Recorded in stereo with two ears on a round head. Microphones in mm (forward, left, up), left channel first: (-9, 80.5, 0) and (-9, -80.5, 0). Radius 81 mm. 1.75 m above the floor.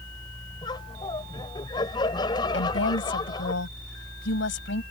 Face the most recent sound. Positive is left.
turn(degrees=80)